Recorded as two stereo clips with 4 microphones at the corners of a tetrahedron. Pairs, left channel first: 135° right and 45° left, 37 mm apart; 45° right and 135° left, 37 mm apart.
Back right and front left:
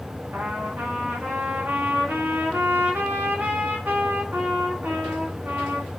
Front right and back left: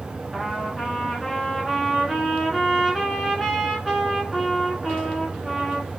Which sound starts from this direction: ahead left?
A trumpet, at 0.3 s.